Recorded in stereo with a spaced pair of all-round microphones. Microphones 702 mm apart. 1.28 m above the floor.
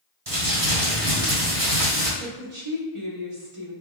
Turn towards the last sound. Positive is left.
turn(degrees=-45)  # may be behind; listen again after turning